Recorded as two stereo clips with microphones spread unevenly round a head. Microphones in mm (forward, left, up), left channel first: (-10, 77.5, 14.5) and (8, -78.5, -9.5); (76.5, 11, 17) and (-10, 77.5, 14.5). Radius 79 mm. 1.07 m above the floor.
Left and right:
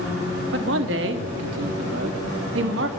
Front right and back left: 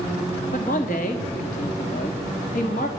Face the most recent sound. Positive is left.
turn(degrees=-75)